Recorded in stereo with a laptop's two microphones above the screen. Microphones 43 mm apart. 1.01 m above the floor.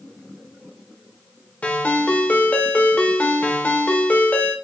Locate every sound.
1.6 s a ringtone: 35° left (ahead or behind), 1.5 m